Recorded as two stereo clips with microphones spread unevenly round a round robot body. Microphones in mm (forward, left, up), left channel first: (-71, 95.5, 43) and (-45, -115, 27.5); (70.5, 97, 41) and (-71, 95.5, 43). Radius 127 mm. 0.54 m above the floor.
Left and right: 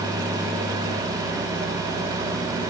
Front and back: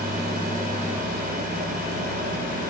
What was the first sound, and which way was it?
Only background noise.